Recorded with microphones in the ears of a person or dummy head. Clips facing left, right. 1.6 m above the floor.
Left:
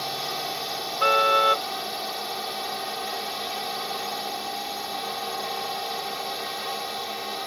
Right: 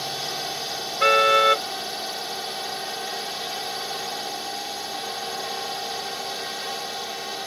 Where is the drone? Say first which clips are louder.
Even; centre (ahead or behind).